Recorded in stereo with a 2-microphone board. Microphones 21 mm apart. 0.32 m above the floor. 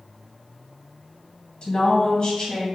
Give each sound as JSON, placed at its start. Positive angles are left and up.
{"t": 1.6, "sound": "a woman speaking", "side_deg": 55, "distance_m": 1.7}